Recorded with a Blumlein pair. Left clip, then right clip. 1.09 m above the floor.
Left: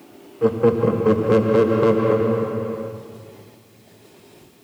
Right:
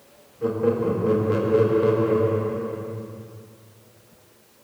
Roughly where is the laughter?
Ahead left.